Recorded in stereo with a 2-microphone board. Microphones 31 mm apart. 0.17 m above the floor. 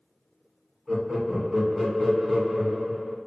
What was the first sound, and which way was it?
Laughter, 10° right (ahead or behind).